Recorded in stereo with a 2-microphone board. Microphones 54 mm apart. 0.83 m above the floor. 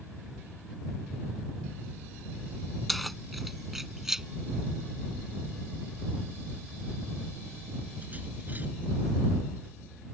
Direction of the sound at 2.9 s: Centre (ahead or behind).